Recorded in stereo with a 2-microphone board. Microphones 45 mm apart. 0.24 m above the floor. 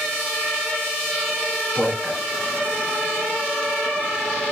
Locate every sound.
1.8 s a man speaking: 30° right (ahead or behind), 3.5 m